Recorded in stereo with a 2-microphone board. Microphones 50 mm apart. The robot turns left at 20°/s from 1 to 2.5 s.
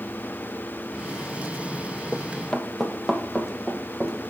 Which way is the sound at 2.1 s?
20° left (ahead or behind).